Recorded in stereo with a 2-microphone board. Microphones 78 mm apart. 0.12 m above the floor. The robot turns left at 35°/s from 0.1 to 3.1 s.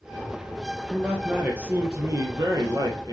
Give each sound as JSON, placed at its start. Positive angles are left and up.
{"t": 0.9, "sound": "a man speaking", "azimuth_deg": -5, "distance_m": 3.0}